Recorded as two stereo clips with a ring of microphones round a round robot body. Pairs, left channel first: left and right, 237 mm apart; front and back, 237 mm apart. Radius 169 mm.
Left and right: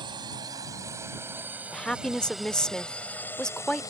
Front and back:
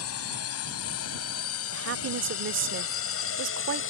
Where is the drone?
15° right; by 3.9 s 15° left.